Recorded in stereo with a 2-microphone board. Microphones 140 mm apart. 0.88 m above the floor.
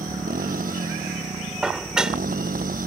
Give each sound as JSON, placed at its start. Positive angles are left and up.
{"t": 0.0, "sound": "a motorcycle", "side_deg": -85}
{"t": 1.6, "sound": "dishes clattering", "side_deg": -5}